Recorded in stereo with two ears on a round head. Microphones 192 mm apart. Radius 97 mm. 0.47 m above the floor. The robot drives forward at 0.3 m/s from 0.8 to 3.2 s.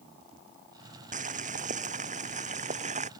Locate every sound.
1.1 s boiling: 35° right (ahead or behind)